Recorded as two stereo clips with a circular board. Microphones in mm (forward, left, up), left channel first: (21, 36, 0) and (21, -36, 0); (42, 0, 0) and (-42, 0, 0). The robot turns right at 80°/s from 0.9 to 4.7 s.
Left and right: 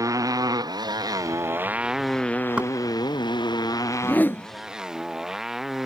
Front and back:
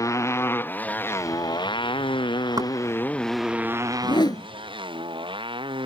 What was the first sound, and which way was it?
A motorcycle, 50° right.